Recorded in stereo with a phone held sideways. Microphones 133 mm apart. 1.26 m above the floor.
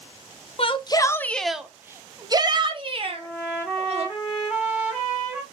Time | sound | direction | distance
0.6 | a shout | 45° left (ahead or behind) | 0.6 m
3.1 | a trumpet | 5° right (ahead or behind) | 2.5 m